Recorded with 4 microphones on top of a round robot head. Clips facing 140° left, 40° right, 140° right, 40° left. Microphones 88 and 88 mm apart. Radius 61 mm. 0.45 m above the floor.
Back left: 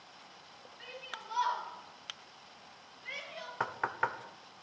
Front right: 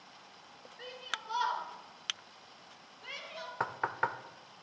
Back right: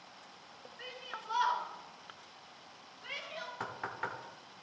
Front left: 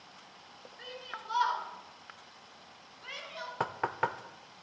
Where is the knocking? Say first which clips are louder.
Even, front left 9 dB; 40° left, 0.8 m.